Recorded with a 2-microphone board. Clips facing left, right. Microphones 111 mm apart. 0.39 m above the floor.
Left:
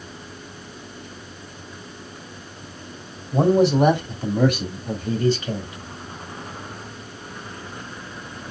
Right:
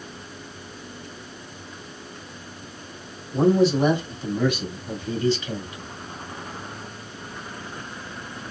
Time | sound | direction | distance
3.3 | a man speaking | 65° left (ahead or behind) | 2.5 m